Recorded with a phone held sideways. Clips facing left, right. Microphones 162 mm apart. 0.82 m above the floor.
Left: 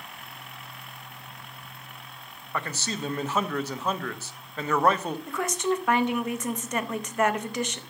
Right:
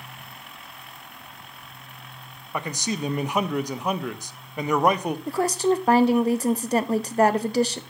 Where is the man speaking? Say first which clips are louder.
Right 4 dB; 15° right (ahead or behind), 0.5 m.